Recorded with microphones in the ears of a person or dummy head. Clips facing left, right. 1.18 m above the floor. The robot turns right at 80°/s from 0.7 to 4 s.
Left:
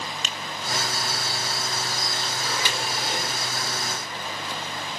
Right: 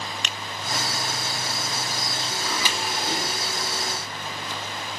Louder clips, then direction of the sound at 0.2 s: Even; 50° right (ahead or behind).